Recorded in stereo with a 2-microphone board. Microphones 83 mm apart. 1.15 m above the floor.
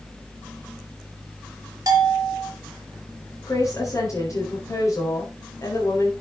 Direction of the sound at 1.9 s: 45° right (ahead or behind).